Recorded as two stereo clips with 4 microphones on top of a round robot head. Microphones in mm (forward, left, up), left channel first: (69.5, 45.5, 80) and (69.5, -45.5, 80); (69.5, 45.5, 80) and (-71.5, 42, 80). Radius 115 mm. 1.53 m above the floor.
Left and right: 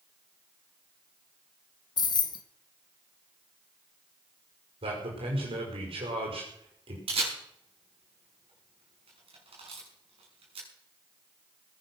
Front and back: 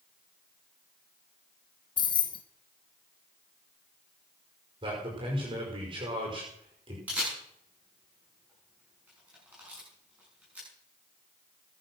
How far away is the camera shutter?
About 7 m.